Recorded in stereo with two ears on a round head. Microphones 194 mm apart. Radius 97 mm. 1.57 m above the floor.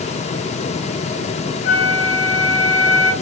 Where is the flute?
60° left (ahead or behind), 5 m.